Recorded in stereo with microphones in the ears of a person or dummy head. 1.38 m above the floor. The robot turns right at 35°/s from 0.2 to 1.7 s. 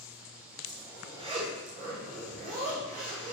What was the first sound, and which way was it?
A zipper, 170° right.